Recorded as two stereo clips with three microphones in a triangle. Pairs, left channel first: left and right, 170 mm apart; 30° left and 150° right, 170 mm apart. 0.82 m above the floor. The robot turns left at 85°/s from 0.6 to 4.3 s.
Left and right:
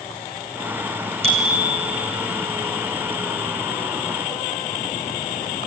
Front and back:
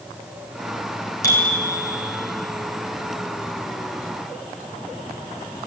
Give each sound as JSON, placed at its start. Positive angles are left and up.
{"t": 1.2, "sound": "a bicycle bell", "azimuth_deg": -40, "distance_m": 7.5}